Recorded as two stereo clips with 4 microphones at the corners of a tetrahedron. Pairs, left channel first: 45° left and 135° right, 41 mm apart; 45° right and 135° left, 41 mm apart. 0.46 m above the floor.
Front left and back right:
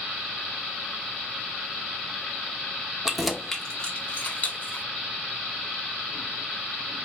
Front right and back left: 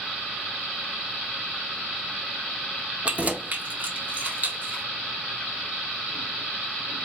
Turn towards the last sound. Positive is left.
turn(degrees=85)